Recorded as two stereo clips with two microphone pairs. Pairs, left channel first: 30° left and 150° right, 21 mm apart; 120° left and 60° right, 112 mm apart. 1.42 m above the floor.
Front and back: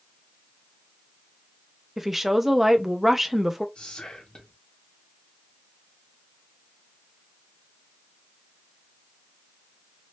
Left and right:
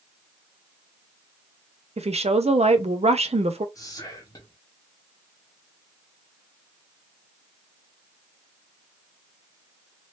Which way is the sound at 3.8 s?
60° left.